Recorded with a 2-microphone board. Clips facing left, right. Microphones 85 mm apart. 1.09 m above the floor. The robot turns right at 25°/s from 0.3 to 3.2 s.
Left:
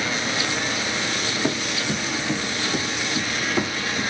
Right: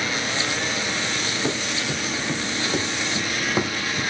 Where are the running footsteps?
10° left (ahead or behind), 3 m; by 4.0 s 30° right (ahead or behind), 4.5 m.